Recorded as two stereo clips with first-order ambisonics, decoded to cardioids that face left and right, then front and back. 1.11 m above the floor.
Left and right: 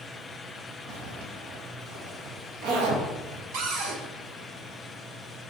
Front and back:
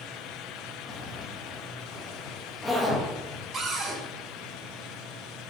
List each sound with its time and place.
0.9 s a zipper: 80° right, 1.3 m
3.5 s a cupboard door: 110° right, 1.4 m